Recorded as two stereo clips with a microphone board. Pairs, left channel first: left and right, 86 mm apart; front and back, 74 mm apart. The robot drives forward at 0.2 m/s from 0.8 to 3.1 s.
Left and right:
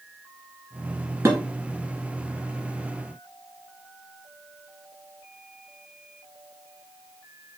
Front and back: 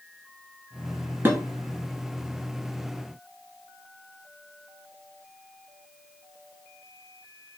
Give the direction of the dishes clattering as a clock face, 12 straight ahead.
5 o'clock.